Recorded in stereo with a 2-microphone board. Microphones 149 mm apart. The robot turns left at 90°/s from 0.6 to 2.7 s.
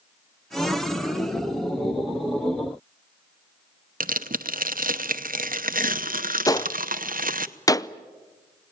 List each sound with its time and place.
4.0 s tearing paper: 65° right (ahead or behind), 0.8 m
6.5 s a gunshot: 25° left (ahead or behind), 0.5 m